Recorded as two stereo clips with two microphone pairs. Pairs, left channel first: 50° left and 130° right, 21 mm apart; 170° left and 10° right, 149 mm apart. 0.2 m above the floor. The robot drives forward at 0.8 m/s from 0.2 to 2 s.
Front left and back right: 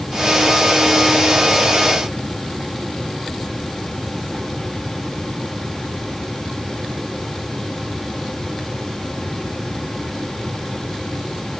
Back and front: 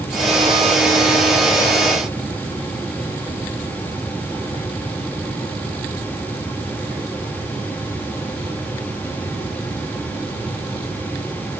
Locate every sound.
Only background noise.